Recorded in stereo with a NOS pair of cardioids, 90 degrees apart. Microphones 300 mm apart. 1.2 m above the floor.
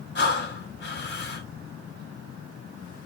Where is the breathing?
35° left, 1.5 m.